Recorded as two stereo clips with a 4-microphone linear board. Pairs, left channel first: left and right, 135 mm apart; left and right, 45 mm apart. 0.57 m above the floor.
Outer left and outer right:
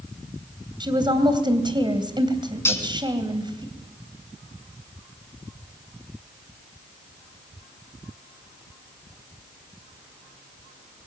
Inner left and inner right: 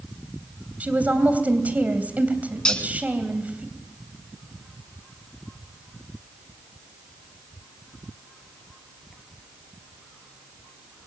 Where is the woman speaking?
35° right (ahead or behind), 3 m.